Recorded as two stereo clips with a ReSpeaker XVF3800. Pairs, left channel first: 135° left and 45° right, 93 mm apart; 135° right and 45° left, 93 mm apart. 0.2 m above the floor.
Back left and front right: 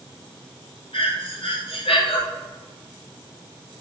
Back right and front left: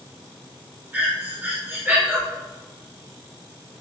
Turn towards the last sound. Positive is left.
turn(degrees=115)